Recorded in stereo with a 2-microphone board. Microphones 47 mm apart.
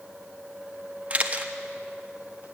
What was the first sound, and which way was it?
A camera shutter, 25° right (ahead or behind).